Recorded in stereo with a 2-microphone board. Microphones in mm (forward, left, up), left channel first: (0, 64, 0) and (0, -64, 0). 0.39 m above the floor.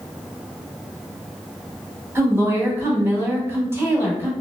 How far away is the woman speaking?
About 0.9 m.